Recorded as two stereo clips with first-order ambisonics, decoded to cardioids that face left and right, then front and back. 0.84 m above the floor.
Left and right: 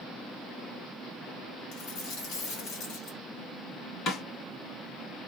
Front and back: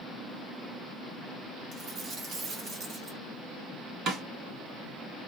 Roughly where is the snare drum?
Behind left.